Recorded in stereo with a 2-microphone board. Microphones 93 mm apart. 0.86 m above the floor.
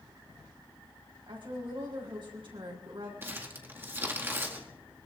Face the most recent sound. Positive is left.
turn(degrees=-25)  # may be behind; listen again after turning